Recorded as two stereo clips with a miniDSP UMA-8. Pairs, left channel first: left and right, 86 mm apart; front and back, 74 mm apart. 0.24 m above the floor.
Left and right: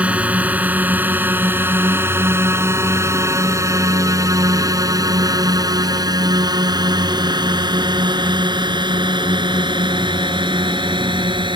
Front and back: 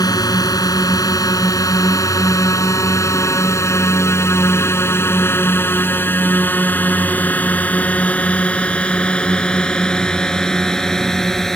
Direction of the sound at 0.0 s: 20° right.